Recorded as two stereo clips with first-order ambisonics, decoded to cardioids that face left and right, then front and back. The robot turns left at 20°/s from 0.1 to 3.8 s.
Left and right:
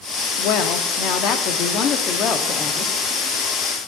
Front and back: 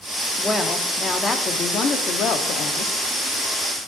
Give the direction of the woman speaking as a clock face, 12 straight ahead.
9 o'clock.